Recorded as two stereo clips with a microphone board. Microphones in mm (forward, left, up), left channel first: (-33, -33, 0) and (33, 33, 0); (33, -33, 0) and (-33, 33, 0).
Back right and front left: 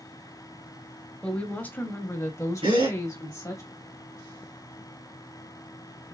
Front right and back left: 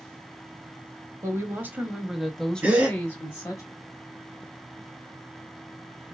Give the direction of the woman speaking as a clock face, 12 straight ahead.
7 o'clock.